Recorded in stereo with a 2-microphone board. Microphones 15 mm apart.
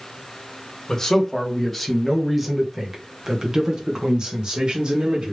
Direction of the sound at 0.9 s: 30° left (ahead or behind).